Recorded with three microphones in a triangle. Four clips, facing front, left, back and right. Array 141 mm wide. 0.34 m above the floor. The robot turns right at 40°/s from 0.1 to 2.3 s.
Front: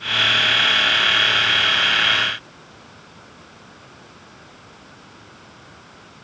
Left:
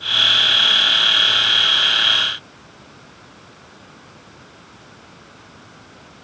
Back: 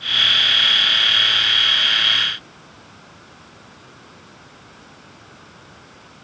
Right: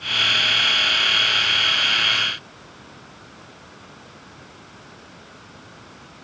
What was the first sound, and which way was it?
Only background noise.